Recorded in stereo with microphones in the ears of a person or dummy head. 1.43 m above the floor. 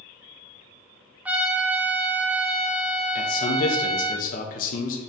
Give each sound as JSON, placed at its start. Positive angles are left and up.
{"t": 1.2, "sound": "a trumpet", "side_deg": -5, "distance_m": 0.6}
{"t": 3.1, "sound": "a man speaking", "side_deg": 45, "distance_m": 1.0}